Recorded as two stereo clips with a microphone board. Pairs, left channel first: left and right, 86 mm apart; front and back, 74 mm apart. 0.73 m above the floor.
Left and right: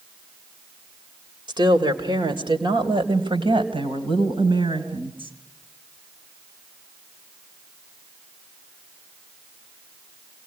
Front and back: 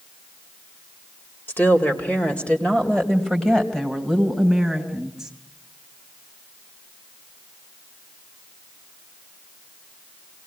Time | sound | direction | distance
1.5 | a woman speaking | 60° right | 2.5 m